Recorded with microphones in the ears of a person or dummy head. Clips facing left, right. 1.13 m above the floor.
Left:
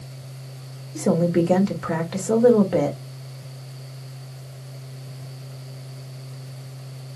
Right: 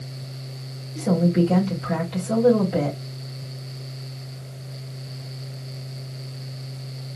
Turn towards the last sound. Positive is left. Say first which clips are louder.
# left 1 dB
turn(degrees=60)  # may be behind; listen again after turning